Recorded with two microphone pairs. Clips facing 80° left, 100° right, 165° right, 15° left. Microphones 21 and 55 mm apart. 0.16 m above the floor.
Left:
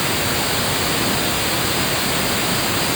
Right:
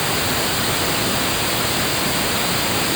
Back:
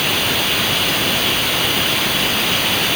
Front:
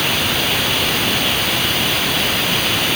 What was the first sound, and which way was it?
Only background noise.